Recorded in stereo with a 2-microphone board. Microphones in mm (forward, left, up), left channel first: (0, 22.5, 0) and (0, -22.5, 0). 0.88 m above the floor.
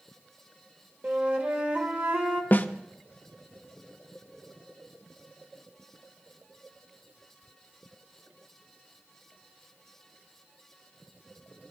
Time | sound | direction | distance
1.0 | a flute | 40° right (ahead or behind) | 1.3 m
2.5 | a snare drum | 45° left (ahead or behind) | 0.5 m